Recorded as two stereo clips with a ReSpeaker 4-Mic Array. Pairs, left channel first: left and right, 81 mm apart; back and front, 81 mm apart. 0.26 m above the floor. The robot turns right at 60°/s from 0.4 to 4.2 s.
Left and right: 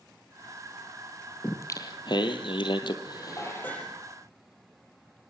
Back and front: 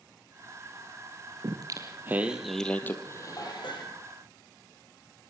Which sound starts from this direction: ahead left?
Singing, at 1.4 s.